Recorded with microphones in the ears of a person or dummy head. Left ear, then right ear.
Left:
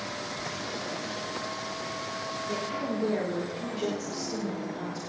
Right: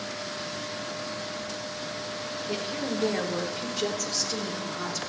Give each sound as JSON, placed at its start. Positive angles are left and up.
{"t": 2.5, "sound": "a woman speaking", "side_deg": -35, "distance_m": 4.0}